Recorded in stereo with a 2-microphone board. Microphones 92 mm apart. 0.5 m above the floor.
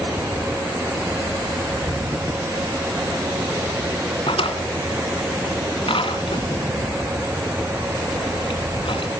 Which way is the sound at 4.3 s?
70° left (ahead or behind).